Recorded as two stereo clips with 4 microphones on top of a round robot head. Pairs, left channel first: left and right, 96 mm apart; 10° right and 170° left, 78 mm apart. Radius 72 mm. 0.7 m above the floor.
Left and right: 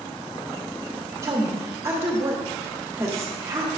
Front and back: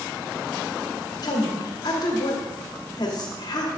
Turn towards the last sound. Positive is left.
turn(degrees=-30)